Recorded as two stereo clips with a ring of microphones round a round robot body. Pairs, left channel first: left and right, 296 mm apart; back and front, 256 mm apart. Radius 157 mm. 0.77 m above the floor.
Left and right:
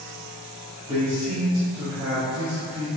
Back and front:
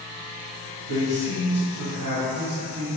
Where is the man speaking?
15° right, 1.0 m.